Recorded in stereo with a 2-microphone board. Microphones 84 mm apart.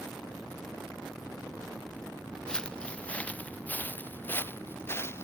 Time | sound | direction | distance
2.5 | footsteps | 10° left (ahead or behind) | ?